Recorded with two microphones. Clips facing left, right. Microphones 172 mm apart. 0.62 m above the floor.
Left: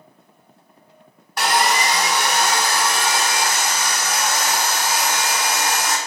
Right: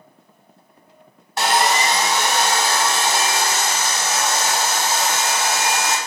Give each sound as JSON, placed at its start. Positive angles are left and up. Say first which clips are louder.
{"t": 1.4, "sound": "sawing", "louder": "right 1 dB", "side_deg": -25, "distance_m": 0.7}